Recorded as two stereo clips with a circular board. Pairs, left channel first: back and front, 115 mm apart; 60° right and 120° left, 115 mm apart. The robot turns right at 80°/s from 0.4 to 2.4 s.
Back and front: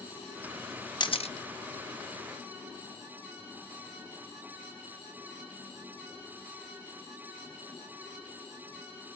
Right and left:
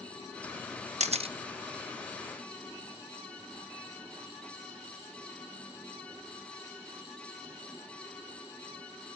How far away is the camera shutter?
About 0.7 m.